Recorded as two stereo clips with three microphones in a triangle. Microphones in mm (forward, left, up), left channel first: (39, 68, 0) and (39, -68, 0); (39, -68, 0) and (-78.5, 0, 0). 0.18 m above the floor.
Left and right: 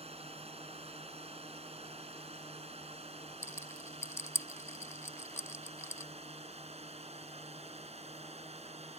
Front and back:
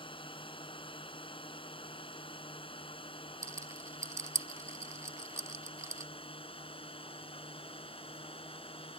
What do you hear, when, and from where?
0.0 s a drone: 70° right; by 9.0 s 65° right
3.4 s a rattle: 130° left